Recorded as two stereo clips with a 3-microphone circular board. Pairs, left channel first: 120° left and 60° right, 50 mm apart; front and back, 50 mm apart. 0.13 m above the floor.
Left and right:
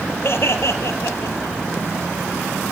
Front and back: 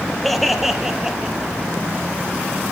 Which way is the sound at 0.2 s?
85° left.